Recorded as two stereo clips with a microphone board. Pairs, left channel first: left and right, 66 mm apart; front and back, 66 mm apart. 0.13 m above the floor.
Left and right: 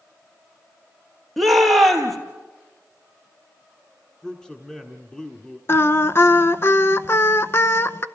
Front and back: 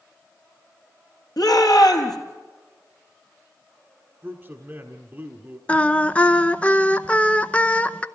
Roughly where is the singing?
Ahead left.